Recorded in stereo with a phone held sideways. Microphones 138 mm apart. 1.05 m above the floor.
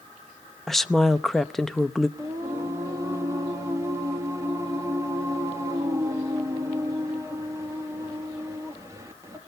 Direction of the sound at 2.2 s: 20° right (ahead or behind).